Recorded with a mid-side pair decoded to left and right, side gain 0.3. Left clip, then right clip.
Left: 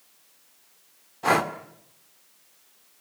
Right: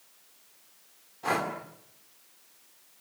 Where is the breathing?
70° left, 2 m.